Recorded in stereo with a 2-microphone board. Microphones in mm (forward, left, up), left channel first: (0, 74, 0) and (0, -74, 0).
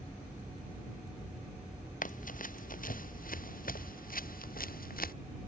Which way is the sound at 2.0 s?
65° left (ahead or behind).